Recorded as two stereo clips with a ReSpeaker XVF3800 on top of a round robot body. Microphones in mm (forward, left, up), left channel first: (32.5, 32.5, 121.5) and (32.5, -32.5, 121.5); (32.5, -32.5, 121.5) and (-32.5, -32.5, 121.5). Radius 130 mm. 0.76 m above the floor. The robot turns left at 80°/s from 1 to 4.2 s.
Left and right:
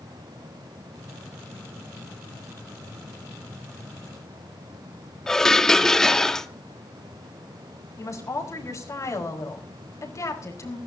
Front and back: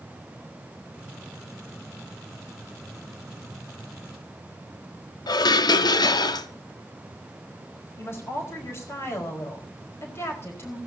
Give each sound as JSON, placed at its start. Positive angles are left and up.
{"t": 5.3, "sound": "dishes clattering", "azimuth_deg": 5, "distance_m": 1.0}
{"t": 8.0, "sound": "a woman speaking", "azimuth_deg": 55, "distance_m": 4.5}